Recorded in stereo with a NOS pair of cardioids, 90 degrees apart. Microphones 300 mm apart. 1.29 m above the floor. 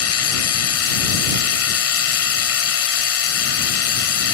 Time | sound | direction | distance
0.0 | a machine running | 55° left | ?